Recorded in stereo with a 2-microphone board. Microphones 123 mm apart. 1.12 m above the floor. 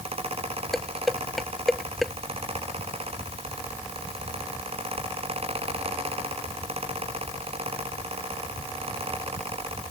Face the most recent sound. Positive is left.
turn(degrees=0)  # may be behind; listen again after turning